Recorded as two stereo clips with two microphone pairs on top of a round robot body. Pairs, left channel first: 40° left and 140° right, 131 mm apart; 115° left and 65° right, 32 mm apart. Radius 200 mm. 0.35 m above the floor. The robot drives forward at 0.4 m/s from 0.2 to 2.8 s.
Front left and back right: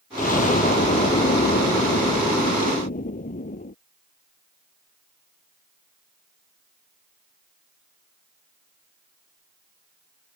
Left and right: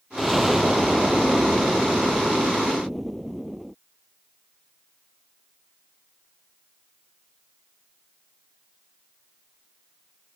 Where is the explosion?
20° left; by 3.8 s 25° left.